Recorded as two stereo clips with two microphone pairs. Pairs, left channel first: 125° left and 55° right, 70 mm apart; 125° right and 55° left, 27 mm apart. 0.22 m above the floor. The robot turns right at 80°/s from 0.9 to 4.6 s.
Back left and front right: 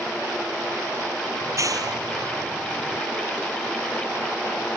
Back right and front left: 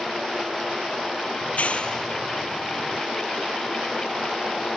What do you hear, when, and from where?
1.4 s a clap: 110° right; by 3.0 s 20° left